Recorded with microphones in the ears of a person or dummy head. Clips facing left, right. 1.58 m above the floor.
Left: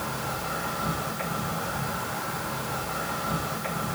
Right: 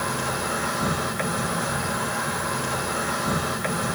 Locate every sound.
0.0 s an insect: 75° right (ahead or behind), 1.4 m